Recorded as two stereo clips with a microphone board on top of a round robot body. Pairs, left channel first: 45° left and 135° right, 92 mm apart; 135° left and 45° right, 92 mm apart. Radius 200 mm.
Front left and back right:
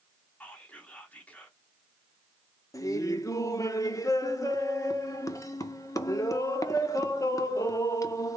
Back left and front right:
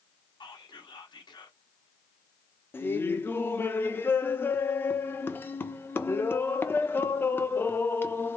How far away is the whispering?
About 1.8 m.